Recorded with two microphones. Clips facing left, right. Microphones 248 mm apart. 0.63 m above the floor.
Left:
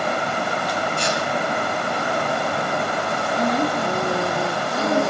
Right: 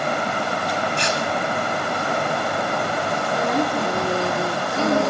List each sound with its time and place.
1.0 s tearing paper: 80° right, 7.5 m
3.3 s a woman speaking: 70° right (ahead or behind), 9 m